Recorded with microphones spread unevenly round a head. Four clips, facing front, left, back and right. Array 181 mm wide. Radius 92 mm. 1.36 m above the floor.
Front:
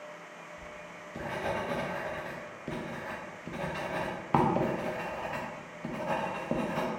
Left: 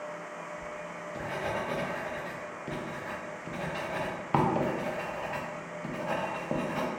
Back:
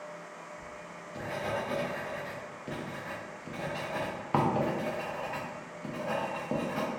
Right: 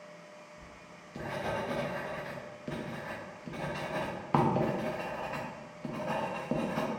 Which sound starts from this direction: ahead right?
Writing, at 0.6 s.